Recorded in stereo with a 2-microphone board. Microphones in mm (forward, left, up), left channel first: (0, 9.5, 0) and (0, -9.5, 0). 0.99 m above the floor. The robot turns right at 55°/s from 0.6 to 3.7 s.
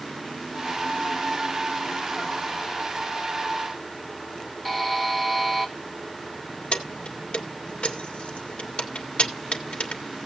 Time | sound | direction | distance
4.7 | a buzzer | 5° left (ahead or behind) | 1.6 m
6.7 | keys jangling | 70° left (ahead or behind) | 2 m